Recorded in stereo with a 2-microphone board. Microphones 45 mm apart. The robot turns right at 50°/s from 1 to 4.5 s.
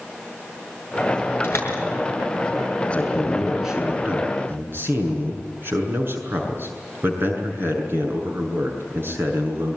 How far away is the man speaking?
About 7 m.